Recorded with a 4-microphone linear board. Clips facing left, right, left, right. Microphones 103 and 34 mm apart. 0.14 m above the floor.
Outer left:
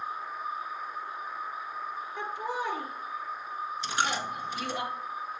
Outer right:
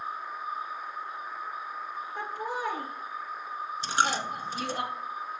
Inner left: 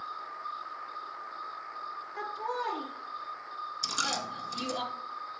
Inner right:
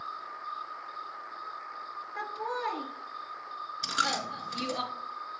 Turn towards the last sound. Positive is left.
turn(degrees=-35)  # may be behind; listen again after turning